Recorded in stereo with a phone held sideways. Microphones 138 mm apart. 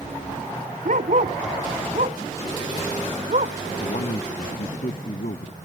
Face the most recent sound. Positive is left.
turn(degrees=65)  # may be behind; listen again after turning